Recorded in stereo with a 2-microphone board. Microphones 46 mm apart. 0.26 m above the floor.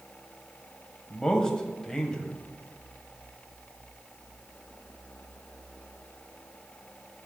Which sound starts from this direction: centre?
A man speaking, at 1.1 s.